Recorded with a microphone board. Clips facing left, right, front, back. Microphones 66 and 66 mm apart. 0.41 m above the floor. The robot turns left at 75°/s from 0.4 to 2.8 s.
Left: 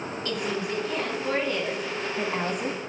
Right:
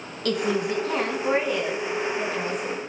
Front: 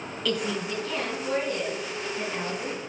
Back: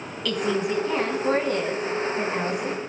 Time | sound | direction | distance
0.2 | a woman speaking | 85° right | 3.5 m